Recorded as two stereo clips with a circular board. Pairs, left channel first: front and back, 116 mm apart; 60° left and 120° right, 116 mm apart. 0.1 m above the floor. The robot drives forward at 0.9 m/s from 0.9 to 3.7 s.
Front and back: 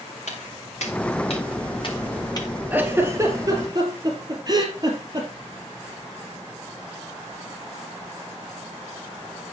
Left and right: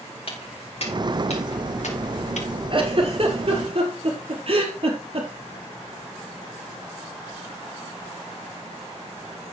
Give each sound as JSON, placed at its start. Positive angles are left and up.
{"t": 0.3, "sound": "footsteps", "azimuth_deg": 20, "distance_m": 6.0}
{"t": 2.7, "sound": "a giggle", "azimuth_deg": -110, "distance_m": 2.0}